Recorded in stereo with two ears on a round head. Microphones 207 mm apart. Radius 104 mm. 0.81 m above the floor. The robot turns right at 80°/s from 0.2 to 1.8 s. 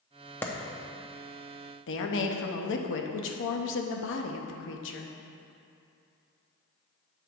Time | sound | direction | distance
0.4 | a clap | 10° left (ahead or behind) | 0.8 m
1.9 | a woman speaking | 55° left (ahead or behind) | 0.8 m